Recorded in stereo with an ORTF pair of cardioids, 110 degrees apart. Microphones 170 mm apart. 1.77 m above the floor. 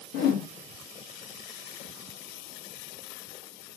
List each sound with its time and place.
0.1 s a whoosh: 70° left, 1.9 m